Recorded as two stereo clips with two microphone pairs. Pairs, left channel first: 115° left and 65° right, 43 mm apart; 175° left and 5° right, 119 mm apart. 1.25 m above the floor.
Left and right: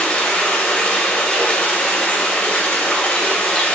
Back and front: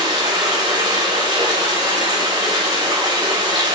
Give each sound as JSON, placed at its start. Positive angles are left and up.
{"t": 0.0, "sound": "running water", "azimuth_deg": 45, "distance_m": 2.5}